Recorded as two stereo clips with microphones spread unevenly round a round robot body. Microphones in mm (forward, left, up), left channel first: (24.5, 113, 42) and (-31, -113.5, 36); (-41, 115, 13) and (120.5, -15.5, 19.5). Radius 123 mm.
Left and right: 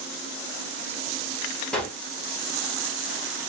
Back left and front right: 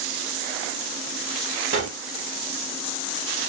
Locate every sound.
1.7 s a gunshot: 10° right, 1.1 m